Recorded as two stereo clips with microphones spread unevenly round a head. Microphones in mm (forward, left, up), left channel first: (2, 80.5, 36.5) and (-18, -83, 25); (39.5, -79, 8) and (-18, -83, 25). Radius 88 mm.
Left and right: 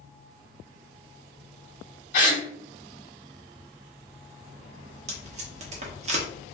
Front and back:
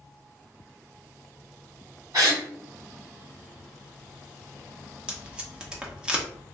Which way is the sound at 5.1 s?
135° right.